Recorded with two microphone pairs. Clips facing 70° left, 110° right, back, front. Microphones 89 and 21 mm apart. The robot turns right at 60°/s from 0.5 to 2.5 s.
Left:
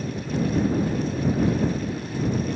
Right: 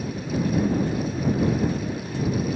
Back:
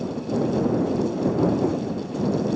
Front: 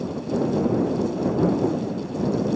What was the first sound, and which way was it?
Only background noise.